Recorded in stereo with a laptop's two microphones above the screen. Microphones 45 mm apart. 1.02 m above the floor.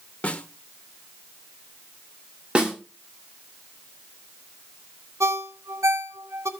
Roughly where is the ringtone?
Right.